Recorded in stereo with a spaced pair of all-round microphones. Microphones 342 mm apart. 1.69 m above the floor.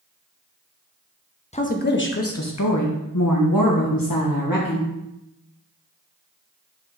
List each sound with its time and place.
1.5 s a woman speaking: 20° left (ahead or behind), 1.0 m; by 4.9 s 75° left (ahead or behind), 1.9 m